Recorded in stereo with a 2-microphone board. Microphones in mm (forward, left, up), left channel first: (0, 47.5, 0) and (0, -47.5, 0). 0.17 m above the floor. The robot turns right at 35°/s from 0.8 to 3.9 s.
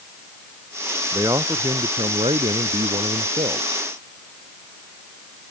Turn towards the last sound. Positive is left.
turn(degrees=-50)